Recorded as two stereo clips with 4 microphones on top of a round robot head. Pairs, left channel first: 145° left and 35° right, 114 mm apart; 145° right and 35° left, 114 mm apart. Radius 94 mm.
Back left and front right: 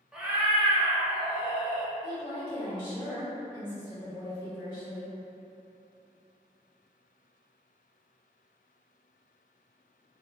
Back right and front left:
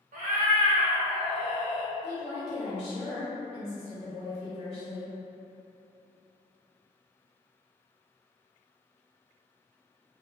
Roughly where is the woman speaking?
Behind.